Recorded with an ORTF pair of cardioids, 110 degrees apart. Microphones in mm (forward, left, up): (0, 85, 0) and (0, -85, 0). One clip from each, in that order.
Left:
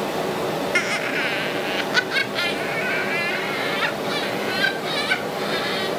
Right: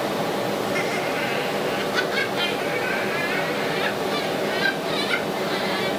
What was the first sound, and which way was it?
Laughter, 55° left.